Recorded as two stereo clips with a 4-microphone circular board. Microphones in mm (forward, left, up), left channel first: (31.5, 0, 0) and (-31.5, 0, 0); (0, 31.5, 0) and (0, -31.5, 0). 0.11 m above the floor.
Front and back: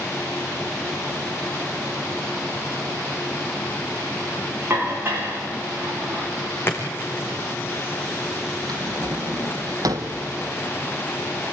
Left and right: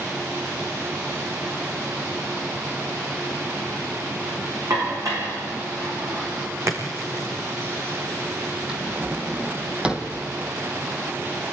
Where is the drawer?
165° right, 1.6 m.